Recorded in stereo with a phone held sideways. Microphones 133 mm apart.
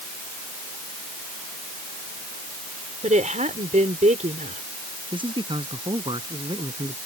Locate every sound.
3.0 s a woman speaking: 70° right (ahead or behind)
5.1 s a man speaking: 40° right (ahead or behind)